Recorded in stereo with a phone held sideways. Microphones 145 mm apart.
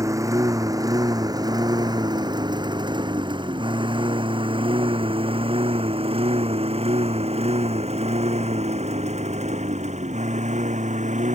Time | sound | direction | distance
0.0 | a lawn mower | 20° right (ahead or behind) | ?